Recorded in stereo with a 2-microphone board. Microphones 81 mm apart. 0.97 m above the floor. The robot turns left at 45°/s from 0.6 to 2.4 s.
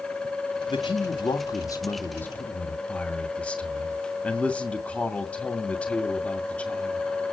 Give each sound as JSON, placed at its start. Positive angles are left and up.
{"t": 0.7, "sound": "a man speaking", "azimuth_deg": 90, "distance_m": 2.0}